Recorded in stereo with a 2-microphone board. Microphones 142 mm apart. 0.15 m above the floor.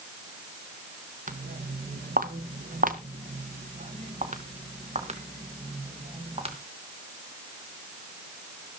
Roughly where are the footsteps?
Right.